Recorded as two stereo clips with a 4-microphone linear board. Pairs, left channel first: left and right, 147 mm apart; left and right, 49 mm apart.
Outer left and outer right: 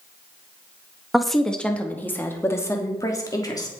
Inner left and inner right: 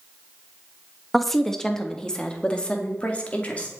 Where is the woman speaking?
Centre (ahead or behind), 1.3 m; by 3.7 s 25° left (ahead or behind), 2.5 m.